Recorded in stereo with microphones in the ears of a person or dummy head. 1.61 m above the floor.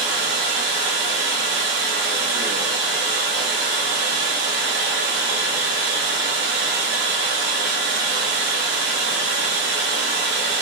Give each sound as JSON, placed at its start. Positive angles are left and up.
{"t": 0.0, "sound": "running water", "side_deg": -35, "distance_m": 1.2}